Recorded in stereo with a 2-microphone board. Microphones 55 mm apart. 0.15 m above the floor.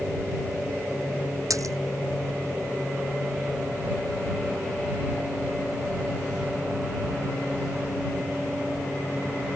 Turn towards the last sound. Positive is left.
turn(degrees=-70)  # may be behind; listen again after turning